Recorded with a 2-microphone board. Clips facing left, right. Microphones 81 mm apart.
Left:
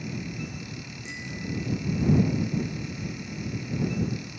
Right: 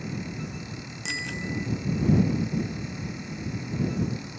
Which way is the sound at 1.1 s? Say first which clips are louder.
Right 3 dB; 85° right.